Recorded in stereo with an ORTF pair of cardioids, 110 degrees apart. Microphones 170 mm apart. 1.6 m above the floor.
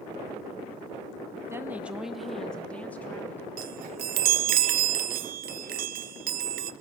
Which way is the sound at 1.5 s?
15° right.